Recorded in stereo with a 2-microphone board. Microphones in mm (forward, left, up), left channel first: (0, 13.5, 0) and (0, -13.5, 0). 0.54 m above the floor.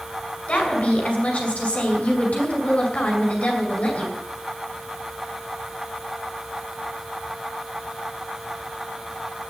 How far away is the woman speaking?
About 5.5 m.